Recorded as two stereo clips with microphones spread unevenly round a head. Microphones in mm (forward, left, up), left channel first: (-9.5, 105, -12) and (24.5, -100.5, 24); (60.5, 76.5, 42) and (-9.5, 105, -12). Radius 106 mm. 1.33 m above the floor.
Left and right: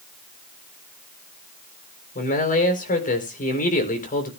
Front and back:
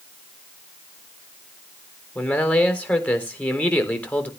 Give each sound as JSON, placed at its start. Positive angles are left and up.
{"t": 2.1, "sound": "a man speaking", "azimuth_deg": 45, "distance_m": 4.0}